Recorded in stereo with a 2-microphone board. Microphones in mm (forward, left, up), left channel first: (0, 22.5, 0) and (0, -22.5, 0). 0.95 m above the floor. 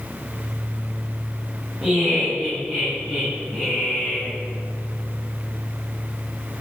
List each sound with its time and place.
1.8 s laughter: centre (ahead or behind), 4.5 m; by 4.3 s 10° left (ahead or behind), 6.5 m